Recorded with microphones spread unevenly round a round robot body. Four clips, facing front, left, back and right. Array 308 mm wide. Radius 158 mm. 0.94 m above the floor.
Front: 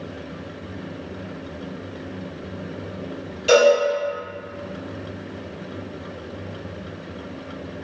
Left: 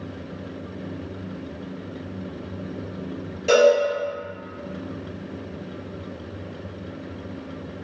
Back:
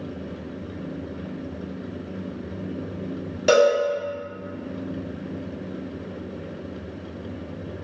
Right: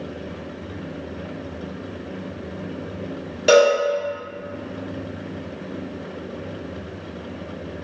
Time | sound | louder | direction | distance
3.5 | a cowbell | right 1 dB, front 2 dB | 120° right | 1.0 m